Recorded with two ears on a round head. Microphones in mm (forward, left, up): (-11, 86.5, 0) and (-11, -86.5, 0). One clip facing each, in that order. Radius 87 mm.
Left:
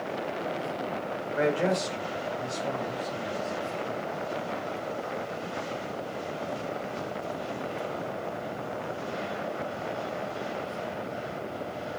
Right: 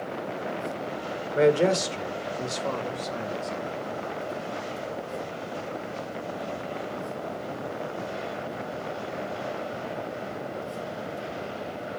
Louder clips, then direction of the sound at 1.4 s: Right 6 dB; 45° right (ahead or behind).